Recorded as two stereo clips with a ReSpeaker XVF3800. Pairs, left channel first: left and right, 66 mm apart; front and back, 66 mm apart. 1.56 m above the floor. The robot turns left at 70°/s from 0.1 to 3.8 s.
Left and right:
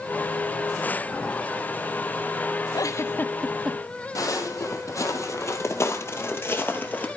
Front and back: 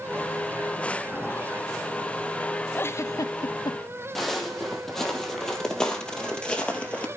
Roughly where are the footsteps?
Left.